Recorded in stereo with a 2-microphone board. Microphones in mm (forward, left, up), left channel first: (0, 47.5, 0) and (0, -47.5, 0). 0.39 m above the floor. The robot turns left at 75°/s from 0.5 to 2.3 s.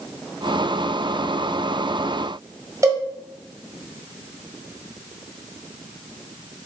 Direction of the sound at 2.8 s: 35° right (ahead or behind).